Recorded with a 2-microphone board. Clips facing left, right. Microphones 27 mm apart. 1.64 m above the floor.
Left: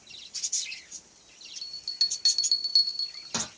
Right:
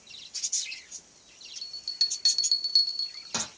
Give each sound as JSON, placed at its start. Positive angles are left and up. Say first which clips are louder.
{"t": 1.6, "sound": "a bell", "louder": "even", "side_deg": 0, "distance_m": 0.7}